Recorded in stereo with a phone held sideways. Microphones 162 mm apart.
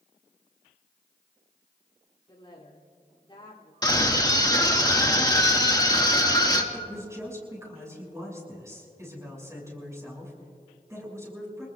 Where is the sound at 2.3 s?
30° left (ahead or behind), 2.5 m.